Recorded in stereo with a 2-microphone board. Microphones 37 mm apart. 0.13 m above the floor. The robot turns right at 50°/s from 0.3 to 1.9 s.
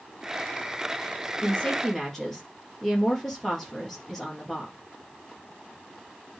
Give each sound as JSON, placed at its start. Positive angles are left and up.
{"t": 1.4, "sound": "a woman speaking", "side_deg": 30, "distance_m": 3.5}